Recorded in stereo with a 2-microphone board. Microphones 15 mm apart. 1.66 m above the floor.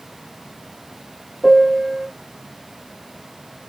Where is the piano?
5° left (ahead or behind), 0.8 m.